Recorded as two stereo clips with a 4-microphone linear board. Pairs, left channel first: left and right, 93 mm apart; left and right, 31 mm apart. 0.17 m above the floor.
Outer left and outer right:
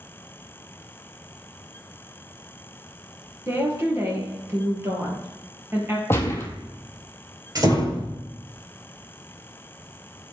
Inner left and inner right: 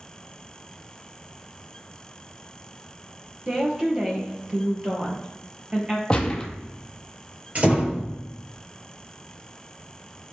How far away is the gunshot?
About 1.4 m.